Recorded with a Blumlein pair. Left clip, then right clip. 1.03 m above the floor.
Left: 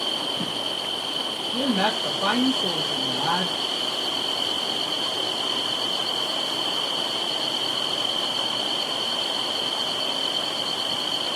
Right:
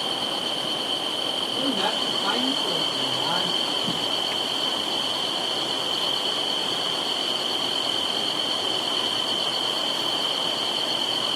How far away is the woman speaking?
About 1.4 m.